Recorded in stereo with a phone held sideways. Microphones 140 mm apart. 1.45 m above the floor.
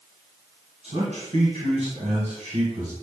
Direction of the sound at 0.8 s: 60° right (ahead or behind).